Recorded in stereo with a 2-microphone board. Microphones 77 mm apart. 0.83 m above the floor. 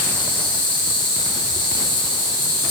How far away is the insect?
About 6 m.